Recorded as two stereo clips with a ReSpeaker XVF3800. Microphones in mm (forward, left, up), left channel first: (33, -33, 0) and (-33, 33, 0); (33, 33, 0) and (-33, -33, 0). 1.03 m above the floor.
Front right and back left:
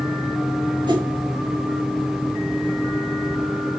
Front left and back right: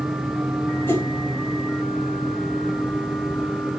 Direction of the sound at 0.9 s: 105° left.